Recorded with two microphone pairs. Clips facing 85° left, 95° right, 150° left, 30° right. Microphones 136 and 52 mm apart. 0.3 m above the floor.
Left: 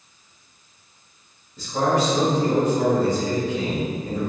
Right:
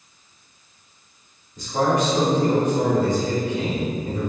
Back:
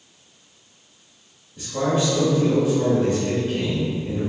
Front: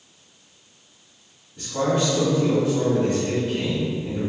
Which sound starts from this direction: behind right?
A man speaking, at 1.6 s.